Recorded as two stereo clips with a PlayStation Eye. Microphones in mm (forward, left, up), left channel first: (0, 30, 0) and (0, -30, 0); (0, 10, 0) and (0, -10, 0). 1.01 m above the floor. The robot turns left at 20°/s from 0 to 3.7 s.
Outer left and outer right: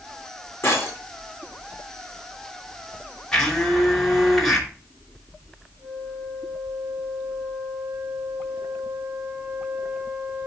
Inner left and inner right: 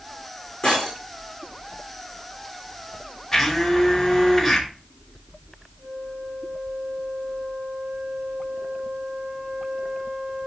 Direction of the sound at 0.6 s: 45° left (ahead or behind).